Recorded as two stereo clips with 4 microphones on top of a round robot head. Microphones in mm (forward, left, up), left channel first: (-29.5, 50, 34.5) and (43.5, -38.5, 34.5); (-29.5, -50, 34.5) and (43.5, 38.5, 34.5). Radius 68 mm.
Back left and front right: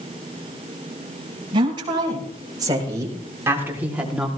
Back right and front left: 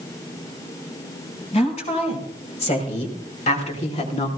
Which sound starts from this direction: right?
A woman speaking, at 1.5 s.